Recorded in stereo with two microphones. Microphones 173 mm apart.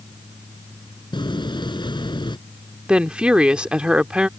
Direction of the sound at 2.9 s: 5° right (ahead or behind).